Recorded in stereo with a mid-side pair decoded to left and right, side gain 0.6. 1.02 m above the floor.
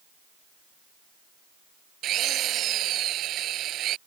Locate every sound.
2.0 s a drill: 55° right